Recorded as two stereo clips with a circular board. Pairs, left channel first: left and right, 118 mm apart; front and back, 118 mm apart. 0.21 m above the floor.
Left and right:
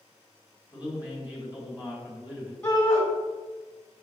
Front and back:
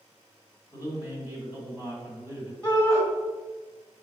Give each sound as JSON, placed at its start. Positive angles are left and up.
{"t": 0.7, "sound": "a man speaking", "azimuth_deg": -145, "distance_m": 1.6}
{"t": 2.6, "sound": "a shout", "azimuth_deg": 175, "distance_m": 1.7}